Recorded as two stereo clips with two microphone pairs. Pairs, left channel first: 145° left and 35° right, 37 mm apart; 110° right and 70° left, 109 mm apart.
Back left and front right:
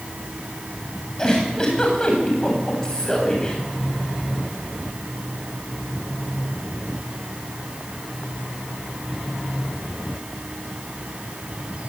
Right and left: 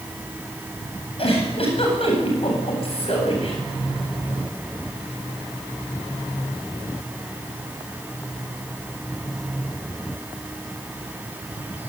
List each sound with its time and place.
1.2 s a giggle: 140° right, 8.5 m